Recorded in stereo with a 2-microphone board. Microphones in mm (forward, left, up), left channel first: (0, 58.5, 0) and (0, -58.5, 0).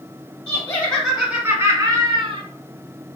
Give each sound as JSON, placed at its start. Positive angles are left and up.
{"t": 0.5, "sound": "laughter", "side_deg": 25, "distance_m": 1.3}